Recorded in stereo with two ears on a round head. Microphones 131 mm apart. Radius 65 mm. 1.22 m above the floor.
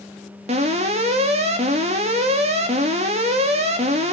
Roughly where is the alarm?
Right.